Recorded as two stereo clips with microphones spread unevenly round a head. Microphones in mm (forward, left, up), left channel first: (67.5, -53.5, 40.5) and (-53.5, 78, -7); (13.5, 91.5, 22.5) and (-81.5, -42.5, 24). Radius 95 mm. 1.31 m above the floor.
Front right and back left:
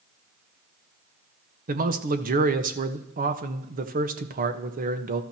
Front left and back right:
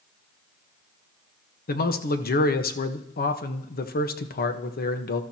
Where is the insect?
No insect in this recording.